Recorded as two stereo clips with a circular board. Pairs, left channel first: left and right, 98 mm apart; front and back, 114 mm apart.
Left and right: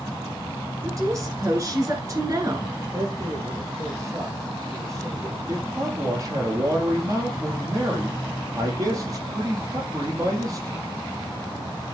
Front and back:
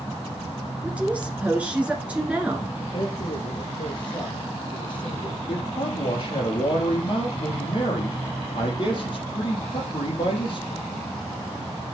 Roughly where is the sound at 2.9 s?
Ahead right.